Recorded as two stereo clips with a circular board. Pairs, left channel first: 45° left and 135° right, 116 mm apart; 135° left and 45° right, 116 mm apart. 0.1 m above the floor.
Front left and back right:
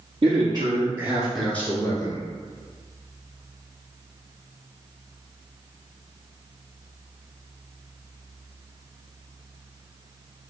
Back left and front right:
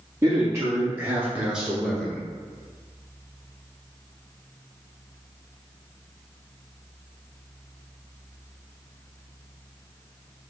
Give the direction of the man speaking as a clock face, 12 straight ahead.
3 o'clock.